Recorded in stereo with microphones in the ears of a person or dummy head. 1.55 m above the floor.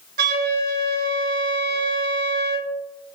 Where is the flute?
55° right (ahead or behind), 0.7 m.